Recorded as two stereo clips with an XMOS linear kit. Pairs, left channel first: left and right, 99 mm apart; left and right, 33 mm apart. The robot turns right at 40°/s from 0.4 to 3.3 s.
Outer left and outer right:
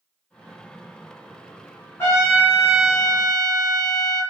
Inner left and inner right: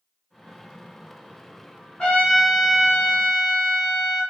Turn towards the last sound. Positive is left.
turn(degrees=-160)